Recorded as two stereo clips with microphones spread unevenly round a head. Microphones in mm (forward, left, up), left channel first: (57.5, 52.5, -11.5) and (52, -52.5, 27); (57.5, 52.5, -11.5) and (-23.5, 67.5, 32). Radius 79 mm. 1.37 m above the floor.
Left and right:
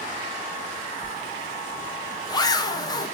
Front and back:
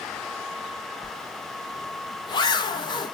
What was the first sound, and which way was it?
A zipper, 30° left.